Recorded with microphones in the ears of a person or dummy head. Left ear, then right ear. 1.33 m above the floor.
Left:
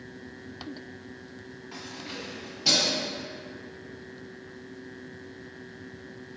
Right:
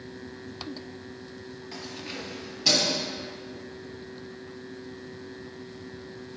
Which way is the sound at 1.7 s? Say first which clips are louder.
Right 1 dB; 15° right (ahead or behind).